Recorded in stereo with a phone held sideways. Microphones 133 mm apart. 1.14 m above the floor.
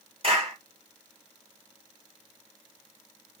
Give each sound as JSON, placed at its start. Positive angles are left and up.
{"t": 0.2, "sound": "a clap", "side_deg": -50, "distance_m": 2.5}